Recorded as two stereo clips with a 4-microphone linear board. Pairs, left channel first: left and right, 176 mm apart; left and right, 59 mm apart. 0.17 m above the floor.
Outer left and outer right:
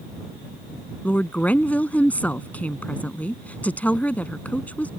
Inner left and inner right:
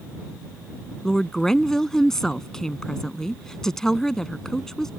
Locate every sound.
1.0 s a woman speaking: 10° left (ahead or behind)